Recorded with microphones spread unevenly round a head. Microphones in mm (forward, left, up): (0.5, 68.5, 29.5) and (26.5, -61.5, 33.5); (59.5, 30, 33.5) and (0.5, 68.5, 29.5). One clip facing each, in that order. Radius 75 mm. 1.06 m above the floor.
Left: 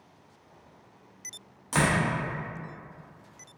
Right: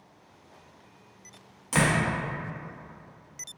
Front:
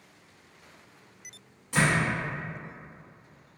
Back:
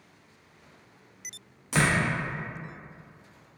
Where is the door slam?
160° right, 0.5 m.